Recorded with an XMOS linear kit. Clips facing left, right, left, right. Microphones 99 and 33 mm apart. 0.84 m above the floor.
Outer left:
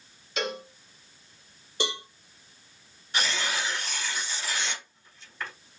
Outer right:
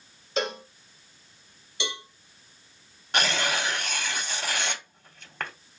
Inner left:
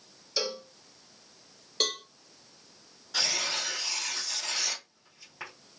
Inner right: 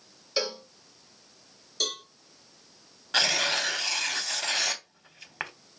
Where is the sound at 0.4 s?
30° right (ahead or behind), 1.5 m.